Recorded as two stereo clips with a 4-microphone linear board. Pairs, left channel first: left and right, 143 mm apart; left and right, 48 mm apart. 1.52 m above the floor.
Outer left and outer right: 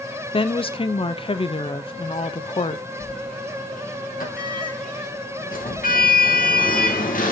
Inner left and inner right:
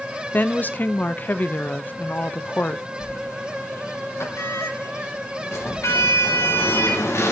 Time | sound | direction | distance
0.3 | a woman speaking | 40° left (ahead or behind) | 0.6 m
3.0 | a sliding door | 75° left (ahead or behind) | 1.7 m